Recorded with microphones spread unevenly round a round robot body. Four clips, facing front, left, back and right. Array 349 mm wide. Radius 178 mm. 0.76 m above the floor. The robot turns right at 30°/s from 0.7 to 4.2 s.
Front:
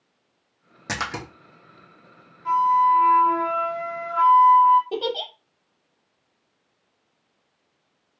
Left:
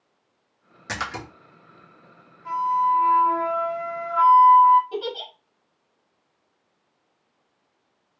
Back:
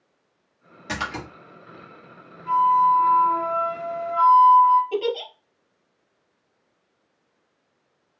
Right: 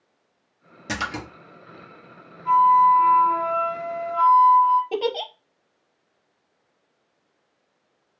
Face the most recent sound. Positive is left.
turn(degrees=-70)